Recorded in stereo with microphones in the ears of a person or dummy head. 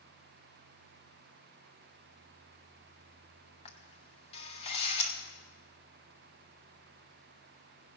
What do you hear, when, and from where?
3.6 s a camera shutter: 30° left (ahead or behind), 0.9 m